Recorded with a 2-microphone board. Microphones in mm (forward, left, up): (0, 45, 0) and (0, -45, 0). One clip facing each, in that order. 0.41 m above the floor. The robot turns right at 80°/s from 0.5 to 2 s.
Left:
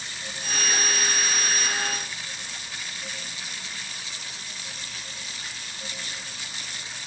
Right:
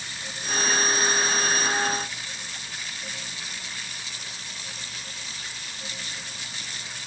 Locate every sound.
Only background noise.